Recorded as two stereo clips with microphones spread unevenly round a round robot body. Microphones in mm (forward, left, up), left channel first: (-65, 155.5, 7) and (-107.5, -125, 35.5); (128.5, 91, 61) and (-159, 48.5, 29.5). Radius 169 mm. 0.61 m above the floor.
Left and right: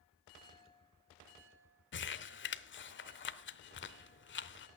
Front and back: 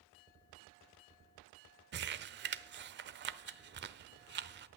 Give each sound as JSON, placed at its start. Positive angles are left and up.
{"t": 1.9, "sound": "crumpling", "azimuth_deg": 135, "distance_m": 0.9}